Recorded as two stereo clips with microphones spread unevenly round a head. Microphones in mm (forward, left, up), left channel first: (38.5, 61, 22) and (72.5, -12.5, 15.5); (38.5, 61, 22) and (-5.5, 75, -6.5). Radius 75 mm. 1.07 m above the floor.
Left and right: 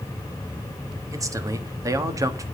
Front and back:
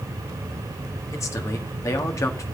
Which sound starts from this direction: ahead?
A man speaking, at 1.1 s.